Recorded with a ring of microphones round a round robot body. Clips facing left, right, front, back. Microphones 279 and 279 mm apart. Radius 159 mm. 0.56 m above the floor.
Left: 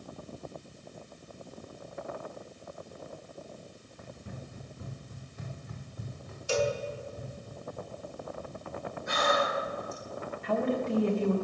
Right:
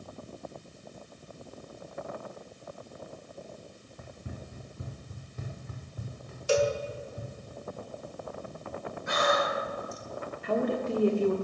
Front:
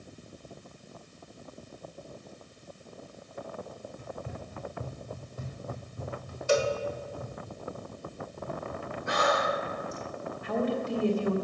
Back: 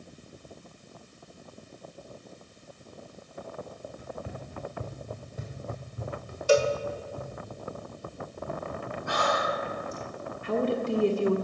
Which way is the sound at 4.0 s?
100° right.